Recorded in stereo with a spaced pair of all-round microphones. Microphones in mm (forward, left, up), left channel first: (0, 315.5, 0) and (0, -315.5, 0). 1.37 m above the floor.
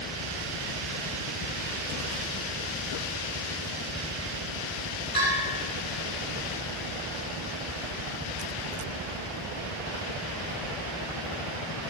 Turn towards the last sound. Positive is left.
turn(degrees=55)  # may be behind; listen again after turning